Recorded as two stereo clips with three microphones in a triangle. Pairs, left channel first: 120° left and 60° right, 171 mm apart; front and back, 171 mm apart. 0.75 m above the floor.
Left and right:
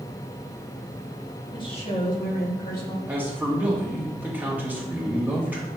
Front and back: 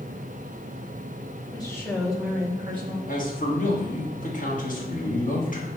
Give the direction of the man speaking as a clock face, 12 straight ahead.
11 o'clock.